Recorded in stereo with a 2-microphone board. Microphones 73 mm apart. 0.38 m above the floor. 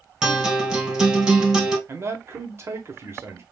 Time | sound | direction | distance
0.2 | a guitar | 10° right (ahead or behind) | 2.0 m
1.9 | a man speaking | 35° right (ahead or behind) | 1.2 m